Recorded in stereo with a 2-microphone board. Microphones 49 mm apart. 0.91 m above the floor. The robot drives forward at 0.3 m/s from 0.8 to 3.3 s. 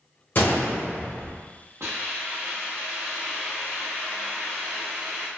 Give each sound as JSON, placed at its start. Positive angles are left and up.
{"t": 0.3, "sound": "a gunshot", "side_deg": 40, "distance_m": 0.8}
{"t": 1.8, "sound": "a hiss", "side_deg": -60, "distance_m": 0.8}